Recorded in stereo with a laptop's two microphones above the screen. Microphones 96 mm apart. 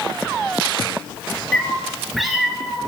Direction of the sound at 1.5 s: 10° left (ahead or behind).